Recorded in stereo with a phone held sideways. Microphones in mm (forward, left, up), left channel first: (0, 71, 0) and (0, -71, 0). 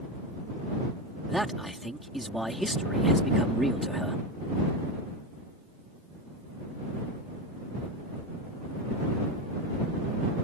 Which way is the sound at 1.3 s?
Centre (ahead or behind).